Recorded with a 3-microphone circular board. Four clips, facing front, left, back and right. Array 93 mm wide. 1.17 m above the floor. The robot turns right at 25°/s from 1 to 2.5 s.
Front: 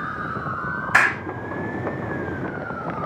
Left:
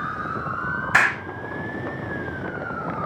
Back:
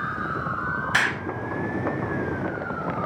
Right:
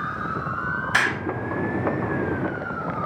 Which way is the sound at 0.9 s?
35° left.